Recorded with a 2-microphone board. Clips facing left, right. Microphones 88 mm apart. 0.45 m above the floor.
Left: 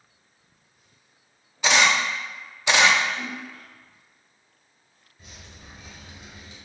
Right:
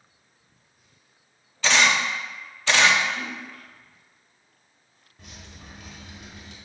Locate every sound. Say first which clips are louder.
1.6 s a camera shutter: left 1 dB; 15° left (ahead or behind), 0.5 m
3.1 s a splash: even; 55° right (ahead or behind), 1.9 m
5.2 s dripping: right 2 dB; 85° right, 1.2 m